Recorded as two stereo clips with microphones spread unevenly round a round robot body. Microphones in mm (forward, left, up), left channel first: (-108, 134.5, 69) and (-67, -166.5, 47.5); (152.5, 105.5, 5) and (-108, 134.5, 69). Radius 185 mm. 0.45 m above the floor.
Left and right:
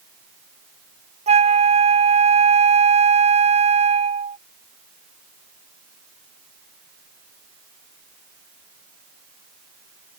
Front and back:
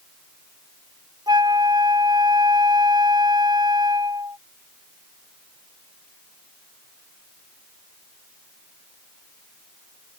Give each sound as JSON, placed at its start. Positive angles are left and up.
{"t": 1.3, "sound": "a flute", "azimuth_deg": -100}